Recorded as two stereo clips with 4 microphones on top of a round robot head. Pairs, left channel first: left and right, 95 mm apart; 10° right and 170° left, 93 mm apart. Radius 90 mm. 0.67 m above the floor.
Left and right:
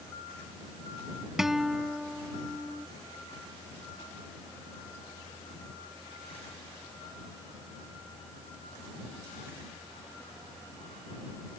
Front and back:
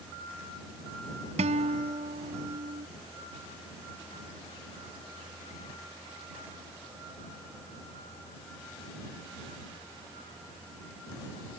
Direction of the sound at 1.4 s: 175° right.